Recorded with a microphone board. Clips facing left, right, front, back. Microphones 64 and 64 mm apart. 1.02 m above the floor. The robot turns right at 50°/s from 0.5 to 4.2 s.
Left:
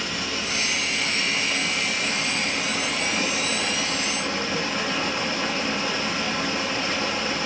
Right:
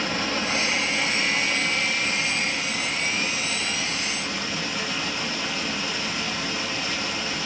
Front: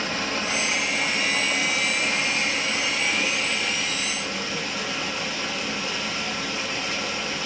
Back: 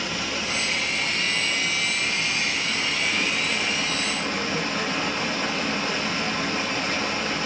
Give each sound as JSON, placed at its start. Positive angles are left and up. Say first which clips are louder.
{"t": 0.0, "sound": "running water", "louder": "right 3 dB, front 2 dB", "azimuth_deg": -45, "distance_m": 0.9}